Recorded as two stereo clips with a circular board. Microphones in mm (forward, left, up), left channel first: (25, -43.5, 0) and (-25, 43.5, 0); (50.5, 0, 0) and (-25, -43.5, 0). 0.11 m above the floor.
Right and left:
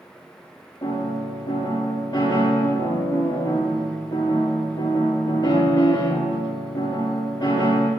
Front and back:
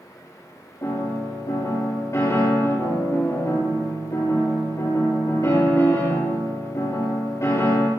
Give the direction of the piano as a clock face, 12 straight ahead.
1 o'clock.